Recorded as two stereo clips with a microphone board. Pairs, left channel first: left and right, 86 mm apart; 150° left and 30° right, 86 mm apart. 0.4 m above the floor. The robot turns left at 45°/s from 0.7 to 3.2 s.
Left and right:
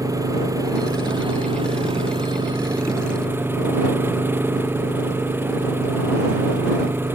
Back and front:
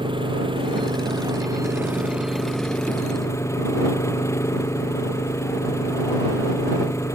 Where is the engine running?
40° right; by 7.2 s 155° right.